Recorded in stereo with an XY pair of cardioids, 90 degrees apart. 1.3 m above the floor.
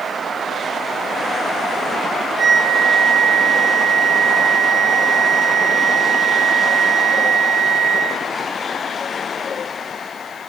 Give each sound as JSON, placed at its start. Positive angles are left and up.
{"t": 2.4, "sound": "a flute", "azimuth_deg": -55, "distance_m": 2.0}